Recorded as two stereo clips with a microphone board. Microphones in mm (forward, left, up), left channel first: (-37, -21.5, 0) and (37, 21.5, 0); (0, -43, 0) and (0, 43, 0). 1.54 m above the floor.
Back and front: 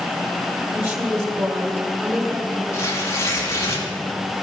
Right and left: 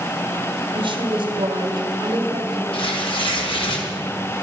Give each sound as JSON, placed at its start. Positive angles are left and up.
{"t": 0.7, "sound": "a woman speaking", "azimuth_deg": 90, "distance_m": 2.5}
{"t": 2.7, "sound": "tearing paper", "azimuth_deg": -95, "distance_m": 2.5}